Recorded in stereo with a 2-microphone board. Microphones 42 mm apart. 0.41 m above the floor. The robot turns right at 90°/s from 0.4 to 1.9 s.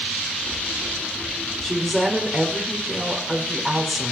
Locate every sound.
1.6 s a woman speaking: 15° left (ahead or behind), 1.6 m; by 4.1 s centre (ahead or behind), 1.6 m